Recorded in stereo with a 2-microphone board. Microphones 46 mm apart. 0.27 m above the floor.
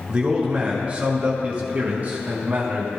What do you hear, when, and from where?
0.1 s a man speaking: 25° right (ahead or behind), 3 m; by 2.9 s 40° right (ahead or behind), 2.0 m